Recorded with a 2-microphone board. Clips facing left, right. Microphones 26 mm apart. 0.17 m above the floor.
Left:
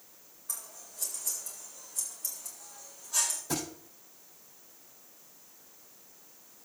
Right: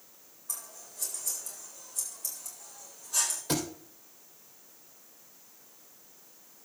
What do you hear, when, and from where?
0.5 s scissors: 5° right (ahead or behind), 7 m
3.5 s a thud: 75° right (ahead or behind), 3 m